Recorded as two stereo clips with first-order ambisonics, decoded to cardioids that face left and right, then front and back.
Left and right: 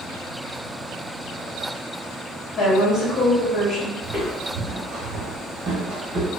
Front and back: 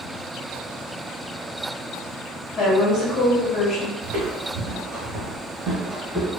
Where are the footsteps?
170° right, 1.5 m; by 6.3 s 75° right, 1.3 m.